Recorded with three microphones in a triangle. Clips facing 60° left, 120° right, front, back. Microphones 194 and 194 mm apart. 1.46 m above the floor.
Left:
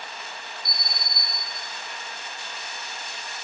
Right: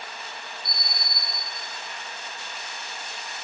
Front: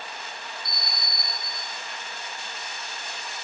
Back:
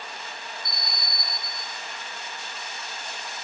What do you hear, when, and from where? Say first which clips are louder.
0.7 s an alarm: even, even; 15° left, 2 m